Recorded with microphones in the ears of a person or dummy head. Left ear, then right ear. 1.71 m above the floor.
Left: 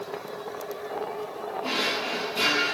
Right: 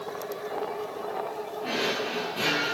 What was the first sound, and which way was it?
A drawer, 35° left (ahead or behind).